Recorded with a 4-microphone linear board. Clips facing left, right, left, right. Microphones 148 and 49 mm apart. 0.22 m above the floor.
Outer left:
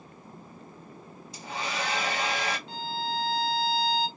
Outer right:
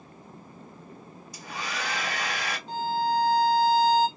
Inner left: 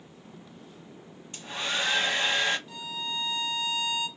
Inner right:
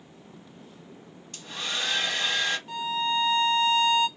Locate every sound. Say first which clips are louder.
1.3 s a hair dryer: outer left 2 dB, inner left 2 dB; 25° left (ahead or behind), 1.0 m
2.7 s a violin: outer right 7 dB, inner right 9 dB; 40° right (ahead or behind), 0.6 m